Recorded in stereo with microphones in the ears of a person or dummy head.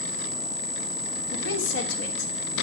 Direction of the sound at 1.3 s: 80° left.